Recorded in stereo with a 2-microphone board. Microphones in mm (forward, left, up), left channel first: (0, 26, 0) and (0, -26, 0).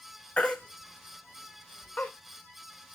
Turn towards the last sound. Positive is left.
turn(degrees=25)  # may be behind; listen again after turning